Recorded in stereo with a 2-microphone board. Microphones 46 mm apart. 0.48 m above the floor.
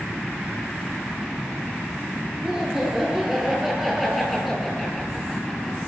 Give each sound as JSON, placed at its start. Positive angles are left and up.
{"t": 2.4, "sound": "laughter", "side_deg": -10, "distance_m": 7.0}